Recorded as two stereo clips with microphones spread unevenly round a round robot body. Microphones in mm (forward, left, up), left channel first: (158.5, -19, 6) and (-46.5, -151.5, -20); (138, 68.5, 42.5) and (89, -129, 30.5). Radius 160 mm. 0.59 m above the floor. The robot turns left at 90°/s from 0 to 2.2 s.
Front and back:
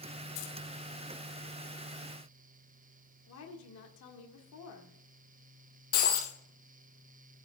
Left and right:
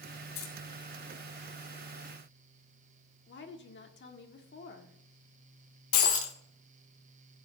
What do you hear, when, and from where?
0.3 s keys jangling: 65° left, 2.5 m; by 0.5 s 50° left, 2.5 m
3.3 s a woman speaking: 60° left, 1.7 m
5.9 s breaking glass: 90° left, 1.5 m